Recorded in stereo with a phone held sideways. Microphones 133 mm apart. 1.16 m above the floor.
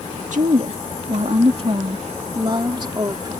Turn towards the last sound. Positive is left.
turn(degrees=-30)  # may be behind; listen again after turning